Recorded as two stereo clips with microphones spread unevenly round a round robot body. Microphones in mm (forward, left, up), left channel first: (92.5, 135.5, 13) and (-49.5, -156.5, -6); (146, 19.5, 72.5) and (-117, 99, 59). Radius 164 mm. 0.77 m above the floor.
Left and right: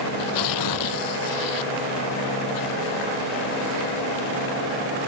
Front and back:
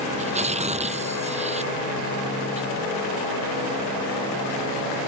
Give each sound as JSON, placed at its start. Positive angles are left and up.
{"t": 0.2, "sound": "tearing paper", "azimuth_deg": 95}